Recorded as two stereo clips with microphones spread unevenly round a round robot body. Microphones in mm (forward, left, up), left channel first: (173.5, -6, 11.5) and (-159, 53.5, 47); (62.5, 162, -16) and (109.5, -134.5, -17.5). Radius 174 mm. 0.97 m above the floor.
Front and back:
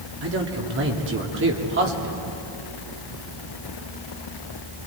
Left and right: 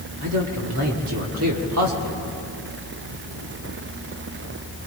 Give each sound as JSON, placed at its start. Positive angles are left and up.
{"t": 0.2, "sound": "a man speaking", "azimuth_deg": -130, "distance_m": 1.9}